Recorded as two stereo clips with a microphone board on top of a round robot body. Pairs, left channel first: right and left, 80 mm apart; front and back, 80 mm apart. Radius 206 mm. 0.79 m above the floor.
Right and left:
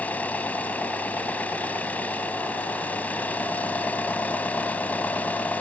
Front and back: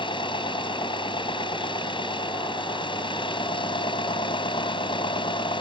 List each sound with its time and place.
0.0 s an engine running: 20° right